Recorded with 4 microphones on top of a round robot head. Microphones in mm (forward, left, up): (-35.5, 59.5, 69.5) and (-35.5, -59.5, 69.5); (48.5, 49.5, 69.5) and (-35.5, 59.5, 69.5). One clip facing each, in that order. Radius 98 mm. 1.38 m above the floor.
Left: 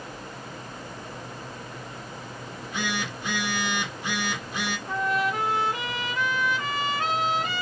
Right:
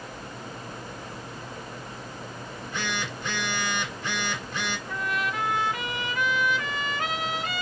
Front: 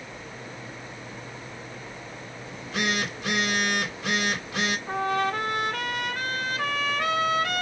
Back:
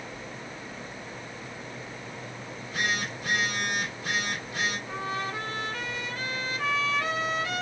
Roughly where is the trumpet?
Ahead left.